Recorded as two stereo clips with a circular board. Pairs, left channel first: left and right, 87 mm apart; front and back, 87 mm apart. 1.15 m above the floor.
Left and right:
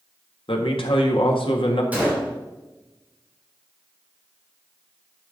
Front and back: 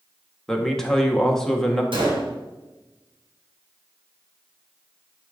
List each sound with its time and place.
0.5 s a man speaking: 85° left, 1.6 m
1.9 s a gunshot: 165° right, 3 m